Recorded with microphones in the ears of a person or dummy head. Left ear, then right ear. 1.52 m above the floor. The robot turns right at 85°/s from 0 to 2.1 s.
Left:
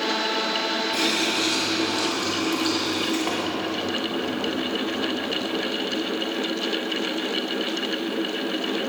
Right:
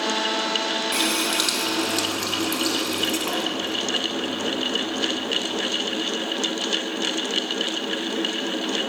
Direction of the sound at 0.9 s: 110° right.